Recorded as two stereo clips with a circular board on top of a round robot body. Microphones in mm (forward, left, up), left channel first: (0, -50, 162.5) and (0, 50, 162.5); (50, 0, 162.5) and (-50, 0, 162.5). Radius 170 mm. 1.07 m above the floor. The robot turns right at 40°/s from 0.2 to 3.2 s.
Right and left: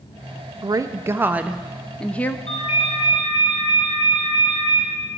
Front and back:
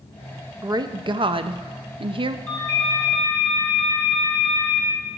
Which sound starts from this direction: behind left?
A woman speaking, at 0.6 s.